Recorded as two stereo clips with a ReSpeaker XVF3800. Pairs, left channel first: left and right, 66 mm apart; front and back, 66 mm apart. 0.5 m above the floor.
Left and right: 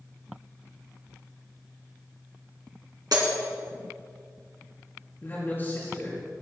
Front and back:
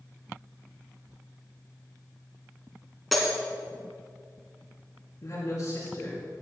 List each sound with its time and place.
3.1 s breaking glass: 90° right, 2.5 m
5.2 s a man speaking: 40° left, 4.5 m